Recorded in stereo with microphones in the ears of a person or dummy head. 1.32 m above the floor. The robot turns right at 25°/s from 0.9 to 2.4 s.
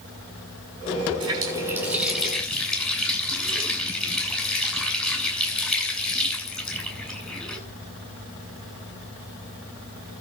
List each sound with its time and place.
1.2 s a running tap: 25° right, 7 m; by 7.6 s 5° left, 7 m